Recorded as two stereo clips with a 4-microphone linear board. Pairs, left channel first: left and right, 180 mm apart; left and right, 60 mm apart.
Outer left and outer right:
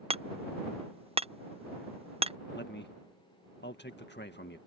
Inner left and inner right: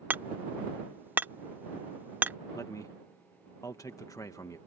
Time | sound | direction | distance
0.1 | hammering | 35° right (ahead or behind) | ?
2.5 | a man speaking | 75° left (ahead or behind) | ?